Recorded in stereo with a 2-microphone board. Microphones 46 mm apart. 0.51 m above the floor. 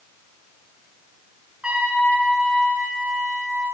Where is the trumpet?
20° right (ahead or behind), 3.5 m.